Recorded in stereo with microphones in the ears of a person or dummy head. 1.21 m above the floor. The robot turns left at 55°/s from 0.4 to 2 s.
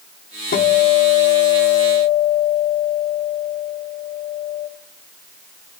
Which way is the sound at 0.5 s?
130° left.